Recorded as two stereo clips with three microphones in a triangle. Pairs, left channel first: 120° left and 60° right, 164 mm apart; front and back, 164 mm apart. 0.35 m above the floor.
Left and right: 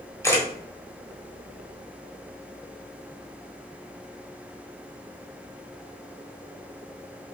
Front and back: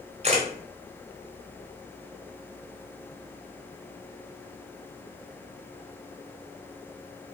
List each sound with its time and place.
0.2 s a camera shutter: 175° right, 1.6 m